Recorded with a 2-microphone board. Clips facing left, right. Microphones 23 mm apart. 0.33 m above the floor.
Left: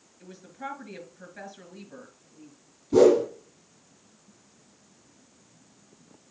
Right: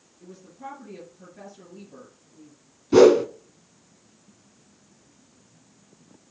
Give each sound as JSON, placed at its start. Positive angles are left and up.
{"t": 0.2, "sound": "a woman speaking", "side_deg": 60, "distance_m": 4.5}
{"t": 2.9, "sound": "a whoosh", "side_deg": -70, "distance_m": 0.9}